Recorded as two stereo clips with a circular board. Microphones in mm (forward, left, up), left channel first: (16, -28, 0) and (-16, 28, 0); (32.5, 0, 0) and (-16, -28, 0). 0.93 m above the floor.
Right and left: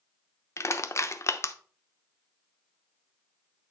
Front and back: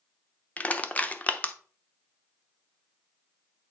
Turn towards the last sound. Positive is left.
turn(degrees=-30)